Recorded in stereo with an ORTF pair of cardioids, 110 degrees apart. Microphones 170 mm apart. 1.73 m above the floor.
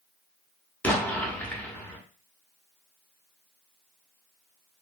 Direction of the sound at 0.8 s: 10° left.